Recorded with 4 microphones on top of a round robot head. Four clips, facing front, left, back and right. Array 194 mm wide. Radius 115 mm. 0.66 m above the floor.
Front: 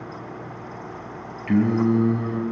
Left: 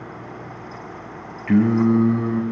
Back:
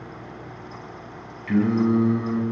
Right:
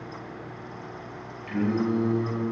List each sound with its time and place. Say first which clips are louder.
1.5 s singing: left 9 dB, front 1 dB; 65° left, 2.5 m